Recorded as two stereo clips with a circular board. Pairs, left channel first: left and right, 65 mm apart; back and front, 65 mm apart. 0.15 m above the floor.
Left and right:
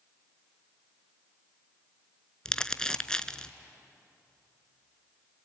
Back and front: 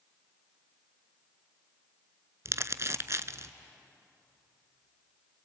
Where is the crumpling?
15° left, 0.6 m.